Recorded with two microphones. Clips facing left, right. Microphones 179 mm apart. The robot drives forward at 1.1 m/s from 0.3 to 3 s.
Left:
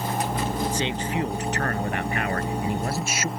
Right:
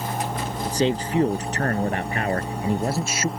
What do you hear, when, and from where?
0.7 s a man speaking: 40° right (ahead or behind); by 3.3 s 30° right (ahead or behind)